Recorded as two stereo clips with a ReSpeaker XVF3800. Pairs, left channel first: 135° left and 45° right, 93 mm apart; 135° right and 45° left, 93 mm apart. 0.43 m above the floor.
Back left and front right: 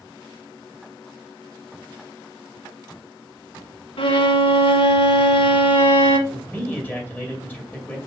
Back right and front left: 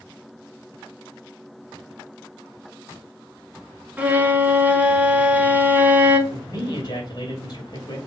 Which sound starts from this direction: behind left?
A violin, at 4.0 s.